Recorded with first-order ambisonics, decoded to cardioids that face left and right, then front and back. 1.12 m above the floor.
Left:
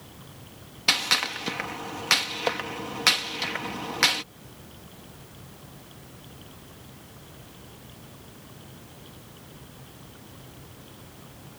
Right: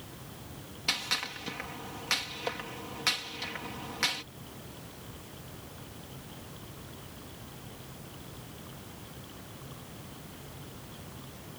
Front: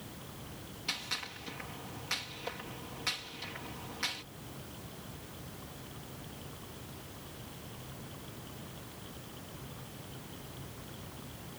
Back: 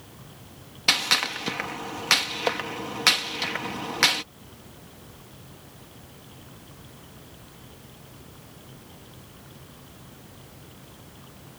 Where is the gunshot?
150° left.